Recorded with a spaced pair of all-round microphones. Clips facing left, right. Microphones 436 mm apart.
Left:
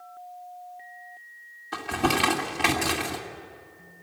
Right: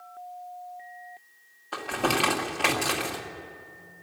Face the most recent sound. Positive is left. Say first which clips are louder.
# left 2 dB
turn(degrees=35)  # may be behind; listen again after turning